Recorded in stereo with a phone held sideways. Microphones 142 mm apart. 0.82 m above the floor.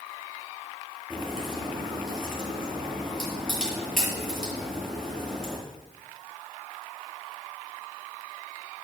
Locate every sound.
1.1 s a crack: 5° left (ahead or behind), 7 m